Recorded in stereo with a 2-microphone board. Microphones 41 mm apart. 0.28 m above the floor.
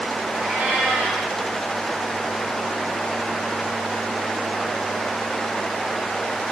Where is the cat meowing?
40° right (ahead or behind), 8 m.